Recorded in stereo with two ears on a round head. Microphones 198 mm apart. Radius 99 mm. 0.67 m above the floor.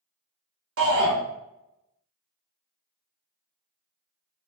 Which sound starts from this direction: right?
A shout, at 0.8 s.